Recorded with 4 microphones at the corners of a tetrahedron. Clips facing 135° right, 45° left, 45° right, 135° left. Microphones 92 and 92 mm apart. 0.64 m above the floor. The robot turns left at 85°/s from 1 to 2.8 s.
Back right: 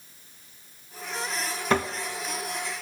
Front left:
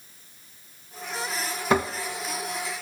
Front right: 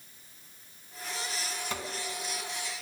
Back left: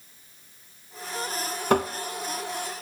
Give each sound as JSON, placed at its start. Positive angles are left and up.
{"t": 1.7, "sound": "tapping", "azimuth_deg": 125, "distance_m": 0.8}